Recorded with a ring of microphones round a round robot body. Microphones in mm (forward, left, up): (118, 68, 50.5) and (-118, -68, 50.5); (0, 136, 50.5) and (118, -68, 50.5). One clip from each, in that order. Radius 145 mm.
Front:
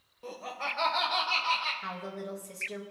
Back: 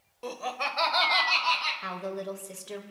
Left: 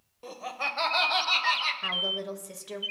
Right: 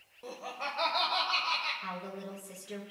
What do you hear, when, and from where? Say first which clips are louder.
0.2 s laughter: back 4 dB, left 6 dB; 160° right, 1.2 m; by 1.7 s 150° left, 2.5 m
1.8 s a woman speaking: back 4 dB, left 11 dB; 150° left, 1.5 m